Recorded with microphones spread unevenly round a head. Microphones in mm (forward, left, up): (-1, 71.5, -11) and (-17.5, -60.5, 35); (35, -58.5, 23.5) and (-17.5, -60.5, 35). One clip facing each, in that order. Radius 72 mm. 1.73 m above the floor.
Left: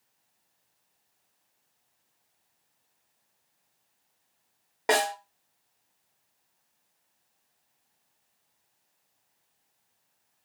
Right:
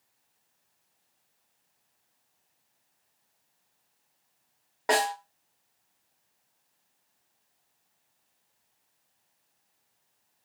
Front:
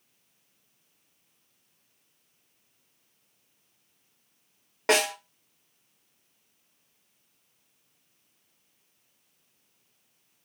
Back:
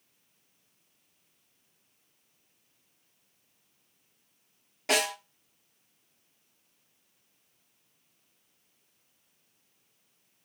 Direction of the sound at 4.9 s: Straight ahead.